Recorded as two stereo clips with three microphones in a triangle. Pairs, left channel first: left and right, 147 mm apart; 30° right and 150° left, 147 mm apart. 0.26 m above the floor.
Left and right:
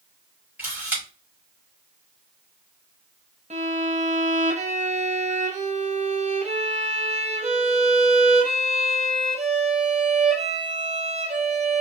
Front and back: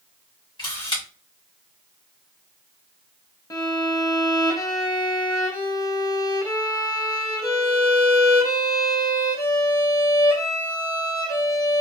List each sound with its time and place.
0.6 s a camera shutter: 20° right, 1.6 m
3.5 s a violin: 90° right, 0.5 m